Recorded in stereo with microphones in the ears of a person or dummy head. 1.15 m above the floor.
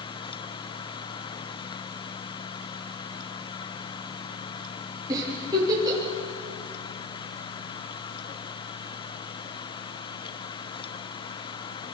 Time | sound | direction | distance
5.1 | a giggle | 15° right (ahead or behind) | 10 m